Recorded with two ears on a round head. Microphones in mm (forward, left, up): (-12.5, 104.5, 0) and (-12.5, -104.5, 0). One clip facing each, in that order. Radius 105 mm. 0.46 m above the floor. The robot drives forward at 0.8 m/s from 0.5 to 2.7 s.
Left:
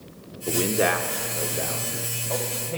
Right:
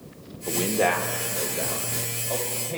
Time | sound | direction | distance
0.5 | a man speaking | 20° left (ahead or behind) | 0.8 m